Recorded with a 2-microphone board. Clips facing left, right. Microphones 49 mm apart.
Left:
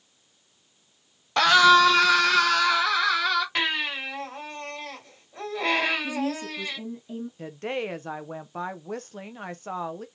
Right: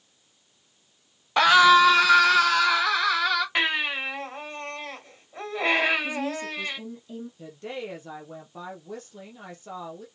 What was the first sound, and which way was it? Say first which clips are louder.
A scream: right 1 dB; 15° right (ahead or behind).